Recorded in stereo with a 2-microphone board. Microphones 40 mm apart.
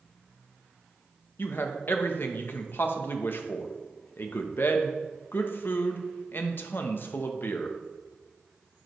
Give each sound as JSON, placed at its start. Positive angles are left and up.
{"t": 1.4, "sound": "a man speaking", "side_deg": 55, "distance_m": 0.8}